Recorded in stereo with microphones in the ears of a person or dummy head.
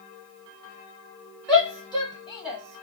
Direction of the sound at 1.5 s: 5° left (ahead or behind).